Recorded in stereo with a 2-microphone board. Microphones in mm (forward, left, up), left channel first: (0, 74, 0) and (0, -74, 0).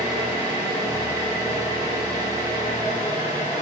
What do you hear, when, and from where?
0.0 s an engine running: 30° right (ahead or behind), 3.5 m